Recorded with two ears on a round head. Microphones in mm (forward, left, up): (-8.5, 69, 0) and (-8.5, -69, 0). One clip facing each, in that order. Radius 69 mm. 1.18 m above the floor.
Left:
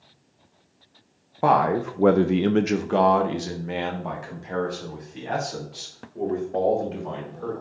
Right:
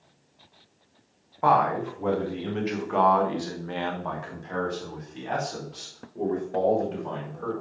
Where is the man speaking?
35° left (ahead or behind), 1.0 m; by 7.5 s 5° left (ahead or behind), 5 m.